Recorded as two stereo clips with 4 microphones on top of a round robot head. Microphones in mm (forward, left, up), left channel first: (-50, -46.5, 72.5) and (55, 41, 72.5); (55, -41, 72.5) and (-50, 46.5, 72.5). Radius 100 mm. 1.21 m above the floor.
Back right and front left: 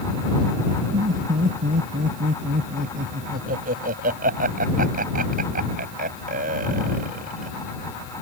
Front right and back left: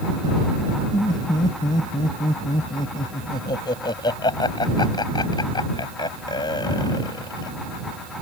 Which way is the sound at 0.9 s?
20° left.